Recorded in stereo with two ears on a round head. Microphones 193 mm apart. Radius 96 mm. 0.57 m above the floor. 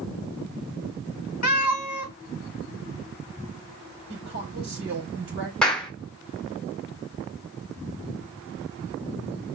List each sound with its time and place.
1.4 s a cat meowing: 85° left, 0.9 m
4.1 s a woman speaking: 60° right (ahead or behind), 3.5 m
5.6 s a clap: 5° left (ahead or behind), 1.4 m